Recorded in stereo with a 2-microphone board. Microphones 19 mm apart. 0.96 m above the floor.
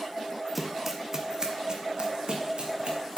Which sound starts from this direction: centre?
Running footsteps, at 0.6 s.